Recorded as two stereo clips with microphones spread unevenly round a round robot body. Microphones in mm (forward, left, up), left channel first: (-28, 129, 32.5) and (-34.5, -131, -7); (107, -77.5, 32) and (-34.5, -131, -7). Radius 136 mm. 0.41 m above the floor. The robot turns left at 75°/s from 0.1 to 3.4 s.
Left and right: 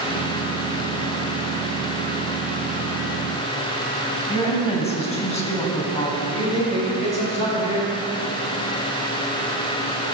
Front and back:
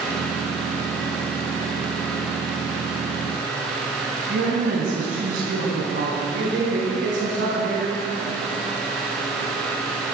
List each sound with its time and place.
4.3 s a woman speaking: 160° left, 3 m
6.3 s a man speaking: 160° left, 4.5 m